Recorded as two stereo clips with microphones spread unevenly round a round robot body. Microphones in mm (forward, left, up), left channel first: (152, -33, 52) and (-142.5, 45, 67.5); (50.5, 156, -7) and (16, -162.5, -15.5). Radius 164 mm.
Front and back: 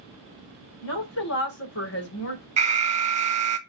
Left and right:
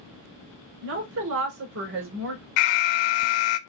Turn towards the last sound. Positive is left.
turn(degrees=95)